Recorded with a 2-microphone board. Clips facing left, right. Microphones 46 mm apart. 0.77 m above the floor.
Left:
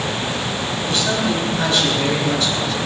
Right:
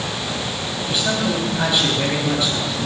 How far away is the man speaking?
About 5.5 m.